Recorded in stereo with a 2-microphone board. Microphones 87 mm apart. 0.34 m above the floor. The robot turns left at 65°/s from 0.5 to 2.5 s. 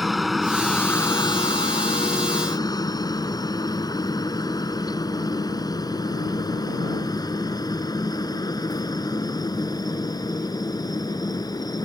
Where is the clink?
No clink in this recording.